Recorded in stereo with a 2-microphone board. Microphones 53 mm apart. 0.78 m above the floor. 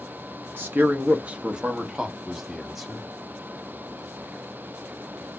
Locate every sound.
0.6 s a man speaking: 35° right (ahead or behind), 0.6 m; by 3.1 s 5° right (ahead or behind), 1.9 m